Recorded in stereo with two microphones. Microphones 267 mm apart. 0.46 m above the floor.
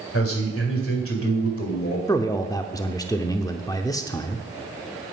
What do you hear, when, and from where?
0.1 s a man speaking: 55° left (ahead or behind), 2 m
2.1 s a man speaking: 15° left (ahead or behind), 0.7 m